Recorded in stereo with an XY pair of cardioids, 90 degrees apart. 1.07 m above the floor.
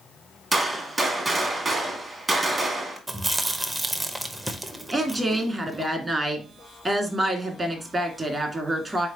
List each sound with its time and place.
0.5 s a gunshot: 35° right, 1.4 m
3.1 s chewing: 25° right, 0.7 m
4.9 s a woman speaking: 35° right, 1.4 m